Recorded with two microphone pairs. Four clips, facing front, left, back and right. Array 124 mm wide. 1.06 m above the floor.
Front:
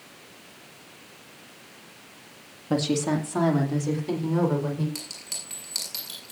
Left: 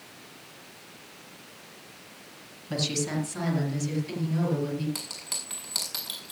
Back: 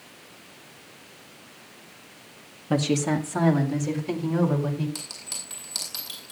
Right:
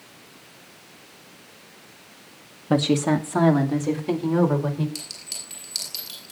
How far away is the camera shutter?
No camera shutter in this recording.